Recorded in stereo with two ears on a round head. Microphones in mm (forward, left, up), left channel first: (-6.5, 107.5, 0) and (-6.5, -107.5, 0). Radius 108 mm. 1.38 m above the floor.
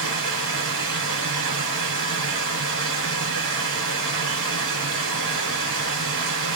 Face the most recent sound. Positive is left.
turn(degrees=-55)  # may be behind; listen again after turning